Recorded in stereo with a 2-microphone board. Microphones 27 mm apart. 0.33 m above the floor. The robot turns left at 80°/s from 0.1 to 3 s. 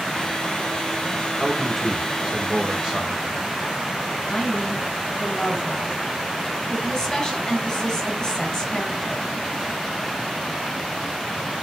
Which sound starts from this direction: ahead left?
A man speaking, at 1.4 s.